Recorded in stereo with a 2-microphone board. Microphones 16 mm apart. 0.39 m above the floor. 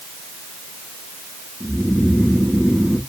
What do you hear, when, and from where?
1.6 s snoring: 40° left (ahead or behind), 3 m